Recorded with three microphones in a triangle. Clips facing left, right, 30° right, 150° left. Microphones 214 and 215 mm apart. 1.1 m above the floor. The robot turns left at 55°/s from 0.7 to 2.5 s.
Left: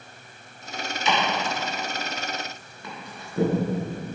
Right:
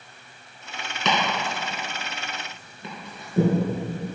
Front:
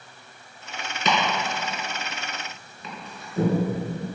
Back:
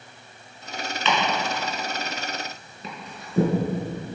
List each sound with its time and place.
1.1 s chopping: 75° right, 3.5 m; by 3.5 s 155° right, 3.5 m